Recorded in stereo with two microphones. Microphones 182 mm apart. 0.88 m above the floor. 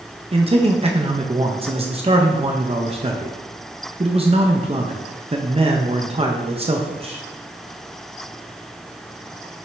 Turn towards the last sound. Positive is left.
turn(degrees=-35)  # may be behind; listen again after turning